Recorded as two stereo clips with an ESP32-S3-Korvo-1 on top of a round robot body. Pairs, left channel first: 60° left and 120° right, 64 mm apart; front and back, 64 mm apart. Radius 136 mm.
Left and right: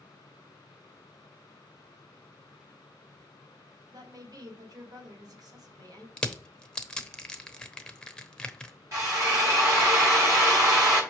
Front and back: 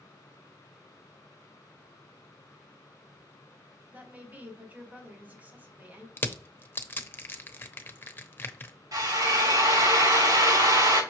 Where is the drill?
165° right, 4.5 m.